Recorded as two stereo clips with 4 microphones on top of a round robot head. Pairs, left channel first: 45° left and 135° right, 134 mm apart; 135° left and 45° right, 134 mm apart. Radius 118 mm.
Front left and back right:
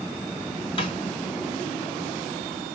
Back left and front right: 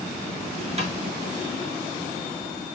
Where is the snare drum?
5° right, 2 m.